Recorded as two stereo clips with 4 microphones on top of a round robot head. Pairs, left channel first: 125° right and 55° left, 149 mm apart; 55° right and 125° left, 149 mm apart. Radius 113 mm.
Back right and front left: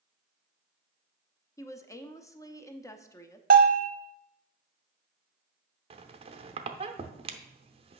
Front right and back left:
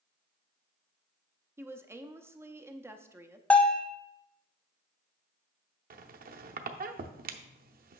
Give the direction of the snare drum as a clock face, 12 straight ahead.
No snare drum in this recording.